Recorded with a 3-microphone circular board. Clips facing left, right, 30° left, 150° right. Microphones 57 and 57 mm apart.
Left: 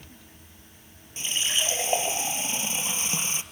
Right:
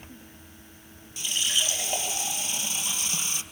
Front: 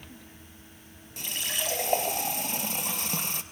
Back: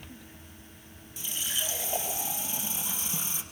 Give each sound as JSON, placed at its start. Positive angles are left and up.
{"t": 1.2, "sound": "a running tap", "azimuth_deg": 35, "distance_m": 2.0}